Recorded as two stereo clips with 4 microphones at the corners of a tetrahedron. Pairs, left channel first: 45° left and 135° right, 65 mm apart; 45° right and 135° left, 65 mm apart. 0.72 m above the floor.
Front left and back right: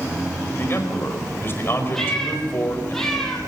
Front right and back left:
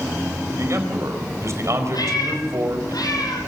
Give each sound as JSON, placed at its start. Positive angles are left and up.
{"t": 0.6, "sound": "a man speaking", "azimuth_deg": 95, "distance_m": 4.5}
{"t": 1.9, "sound": "a cat meowing", "azimuth_deg": -40, "distance_m": 4.0}